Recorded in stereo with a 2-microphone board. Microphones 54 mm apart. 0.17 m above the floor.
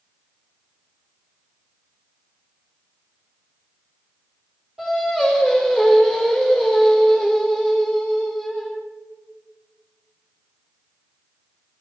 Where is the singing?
10° right (ahead or behind), 3.5 m.